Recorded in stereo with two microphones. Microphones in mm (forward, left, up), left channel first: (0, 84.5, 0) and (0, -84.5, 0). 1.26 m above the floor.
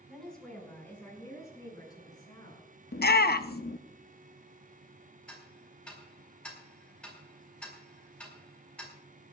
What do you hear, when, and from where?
0.1 s a woman speaking: centre (ahead or behind), 5.5 m; by 2.7 s 30° left (ahead or behind), 8 m
2.9 s a shout: 70° left (ahead or behind), 0.6 m
5.3 s ticking: 5° left (ahead or behind), 4 m